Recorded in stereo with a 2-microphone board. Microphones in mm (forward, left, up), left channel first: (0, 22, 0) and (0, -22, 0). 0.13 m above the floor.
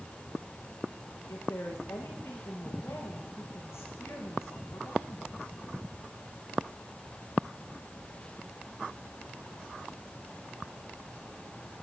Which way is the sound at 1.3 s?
80° left.